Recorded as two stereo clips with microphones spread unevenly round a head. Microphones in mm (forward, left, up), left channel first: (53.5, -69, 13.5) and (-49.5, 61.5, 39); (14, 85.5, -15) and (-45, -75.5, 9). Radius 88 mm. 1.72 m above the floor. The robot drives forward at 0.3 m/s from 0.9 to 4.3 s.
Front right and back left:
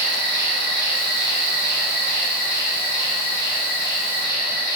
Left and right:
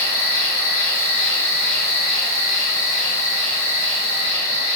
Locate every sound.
0.0 s an insect: 145° left, 1.0 m; by 4.8 s 165° left, 1.9 m